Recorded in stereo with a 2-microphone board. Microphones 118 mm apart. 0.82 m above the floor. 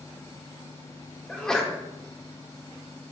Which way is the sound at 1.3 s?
5° left (ahead or behind).